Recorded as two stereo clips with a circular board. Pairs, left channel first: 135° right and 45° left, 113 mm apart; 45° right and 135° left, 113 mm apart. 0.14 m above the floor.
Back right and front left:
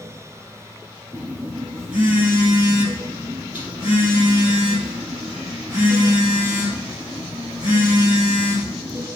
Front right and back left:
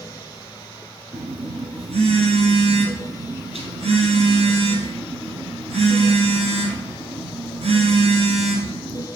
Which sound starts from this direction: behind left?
A phone buzzing, at 1.1 s.